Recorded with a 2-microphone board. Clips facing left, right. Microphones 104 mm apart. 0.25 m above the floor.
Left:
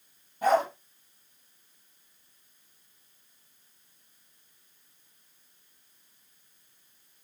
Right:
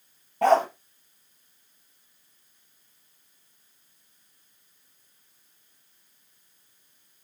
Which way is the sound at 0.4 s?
75° right (ahead or behind).